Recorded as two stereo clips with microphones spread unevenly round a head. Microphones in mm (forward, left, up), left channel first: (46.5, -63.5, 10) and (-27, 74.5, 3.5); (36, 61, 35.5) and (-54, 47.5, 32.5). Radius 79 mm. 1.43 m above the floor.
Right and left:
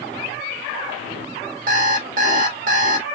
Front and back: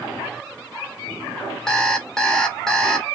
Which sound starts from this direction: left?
An alarm clock, at 1.7 s.